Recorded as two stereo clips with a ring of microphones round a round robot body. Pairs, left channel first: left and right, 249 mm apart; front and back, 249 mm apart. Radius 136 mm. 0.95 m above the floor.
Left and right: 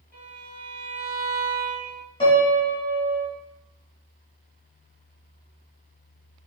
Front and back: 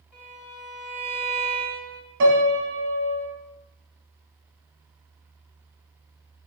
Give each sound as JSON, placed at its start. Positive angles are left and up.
{"t": 0.1, "sound": "a violin", "azimuth_deg": 10, "distance_m": 1.8}
{"t": 2.2, "sound": "a piano", "azimuth_deg": 155, "distance_m": 0.7}